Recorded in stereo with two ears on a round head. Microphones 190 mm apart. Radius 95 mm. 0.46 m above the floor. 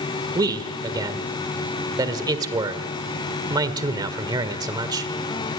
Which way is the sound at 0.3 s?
20° right (ahead or behind).